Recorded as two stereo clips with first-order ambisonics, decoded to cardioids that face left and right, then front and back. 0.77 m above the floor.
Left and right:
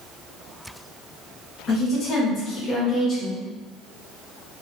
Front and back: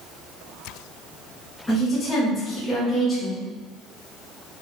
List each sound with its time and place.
1.7 s a woman speaking: 75° left, 1.1 m